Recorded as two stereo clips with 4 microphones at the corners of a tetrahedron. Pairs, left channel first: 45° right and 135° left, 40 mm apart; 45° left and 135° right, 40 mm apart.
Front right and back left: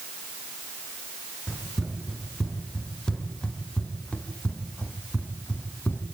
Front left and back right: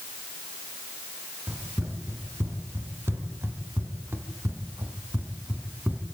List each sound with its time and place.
1.5 s running footsteps: 135° right, 5 m; by 6.0 s 85° right, 4 m